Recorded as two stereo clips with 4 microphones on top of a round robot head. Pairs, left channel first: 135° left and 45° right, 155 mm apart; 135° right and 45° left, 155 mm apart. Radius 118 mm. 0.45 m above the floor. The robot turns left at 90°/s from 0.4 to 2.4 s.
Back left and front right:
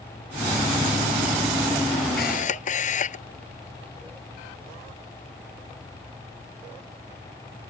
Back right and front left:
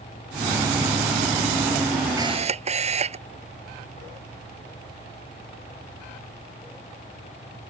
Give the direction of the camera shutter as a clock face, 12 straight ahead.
8 o'clock.